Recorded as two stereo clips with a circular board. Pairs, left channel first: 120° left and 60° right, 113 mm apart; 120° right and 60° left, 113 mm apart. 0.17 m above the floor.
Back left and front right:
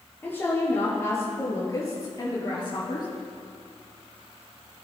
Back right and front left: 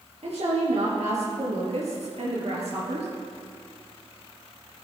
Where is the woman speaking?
50° left, 4 m; by 3.1 s 75° left, 3.5 m.